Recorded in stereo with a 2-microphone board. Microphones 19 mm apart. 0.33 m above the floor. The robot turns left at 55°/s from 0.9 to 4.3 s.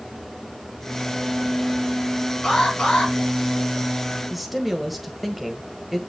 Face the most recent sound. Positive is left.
turn(degrees=-5)  # may be behind; listen again after turning